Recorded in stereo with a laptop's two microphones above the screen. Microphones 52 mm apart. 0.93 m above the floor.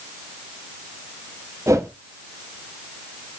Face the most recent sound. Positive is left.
turn(degrees=-80)